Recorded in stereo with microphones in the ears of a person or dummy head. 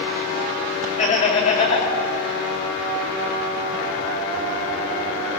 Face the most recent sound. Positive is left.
turn(degrees=40)  # may be behind; listen again after turning